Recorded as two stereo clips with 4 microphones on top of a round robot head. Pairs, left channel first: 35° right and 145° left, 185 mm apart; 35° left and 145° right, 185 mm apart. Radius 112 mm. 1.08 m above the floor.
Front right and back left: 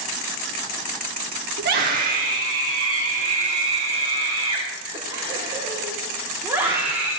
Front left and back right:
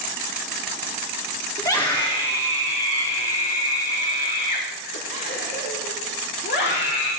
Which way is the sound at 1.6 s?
110° left.